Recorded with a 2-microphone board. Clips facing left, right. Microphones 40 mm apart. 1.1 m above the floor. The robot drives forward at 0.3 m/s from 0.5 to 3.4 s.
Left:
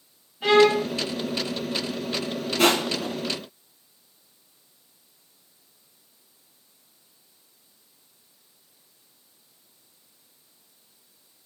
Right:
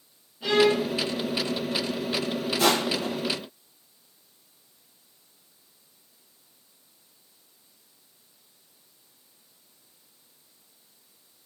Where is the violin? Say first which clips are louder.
Left 4 dB; 65° left (ahead or behind), 4 m; by 0.9 s 70° left (ahead or behind), 4 m.